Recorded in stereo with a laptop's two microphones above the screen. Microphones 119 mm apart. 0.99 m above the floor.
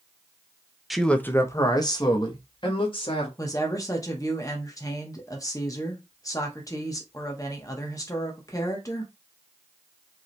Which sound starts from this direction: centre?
A man speaking, at 0.9 s.